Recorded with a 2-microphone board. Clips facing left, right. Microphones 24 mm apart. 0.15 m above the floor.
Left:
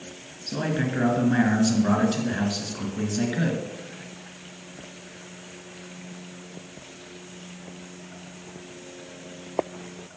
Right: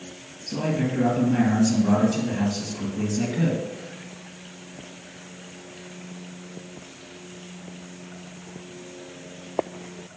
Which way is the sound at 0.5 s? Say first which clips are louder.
Right 1 dB; 40° left (ahead or behind).